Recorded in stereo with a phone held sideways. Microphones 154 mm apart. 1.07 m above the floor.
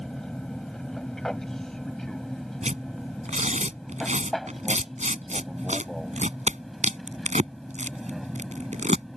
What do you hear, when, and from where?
0.0 s an aircraft: 5° left (ahead or behind); by 9.2 s centre (ahead or behind)
2.6 s tearing paper: 50° right (ahead or behind)